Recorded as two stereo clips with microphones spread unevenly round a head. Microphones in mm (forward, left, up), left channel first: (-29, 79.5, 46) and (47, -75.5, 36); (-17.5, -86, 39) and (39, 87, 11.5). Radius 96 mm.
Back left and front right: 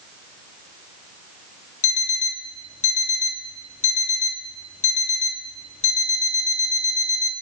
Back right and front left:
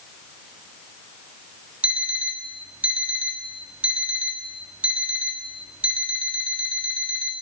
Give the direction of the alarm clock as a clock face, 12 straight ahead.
7 o'clock.